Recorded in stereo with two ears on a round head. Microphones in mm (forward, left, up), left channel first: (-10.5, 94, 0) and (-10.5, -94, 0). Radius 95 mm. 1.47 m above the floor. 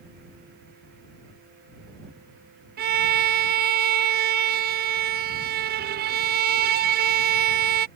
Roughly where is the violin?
Right.